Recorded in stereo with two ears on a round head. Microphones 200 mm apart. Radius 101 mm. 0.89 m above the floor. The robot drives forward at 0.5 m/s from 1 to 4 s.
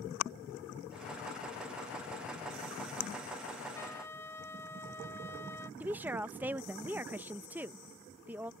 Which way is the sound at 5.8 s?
10° right (ahead or behind).